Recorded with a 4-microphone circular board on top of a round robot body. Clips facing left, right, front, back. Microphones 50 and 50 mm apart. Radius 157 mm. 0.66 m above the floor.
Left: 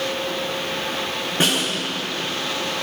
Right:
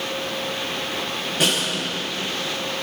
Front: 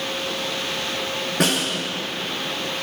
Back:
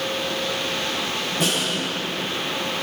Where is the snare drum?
30° left, 7 m.